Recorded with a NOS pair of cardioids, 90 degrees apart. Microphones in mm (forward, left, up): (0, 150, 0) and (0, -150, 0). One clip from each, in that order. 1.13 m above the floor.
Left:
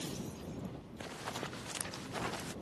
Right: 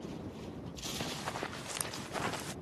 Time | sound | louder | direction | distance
1.0 | running footsteps | right 1 dB | 20° right | ?